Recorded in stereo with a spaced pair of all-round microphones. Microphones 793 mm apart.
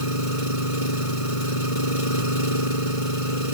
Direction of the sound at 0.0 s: 40° left (ahead or behind).